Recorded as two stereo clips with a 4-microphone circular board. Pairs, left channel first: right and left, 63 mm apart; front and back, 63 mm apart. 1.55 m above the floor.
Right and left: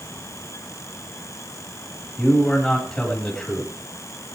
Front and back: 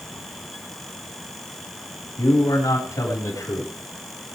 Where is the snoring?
I don't hear snoring.